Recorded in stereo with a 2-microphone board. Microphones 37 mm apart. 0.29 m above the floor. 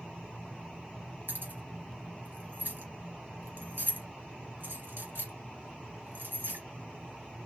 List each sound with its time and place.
1.3 s keys jangling: 70° right (ahead or behind), 2 m